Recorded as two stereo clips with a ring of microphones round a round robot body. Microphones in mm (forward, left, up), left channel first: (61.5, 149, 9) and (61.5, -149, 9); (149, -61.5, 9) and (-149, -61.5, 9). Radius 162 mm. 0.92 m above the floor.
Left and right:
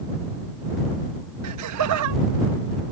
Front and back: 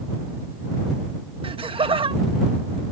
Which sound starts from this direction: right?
Laughter, at 1.4 s.